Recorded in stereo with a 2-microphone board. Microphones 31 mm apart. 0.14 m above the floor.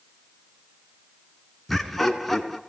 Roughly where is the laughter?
Centre.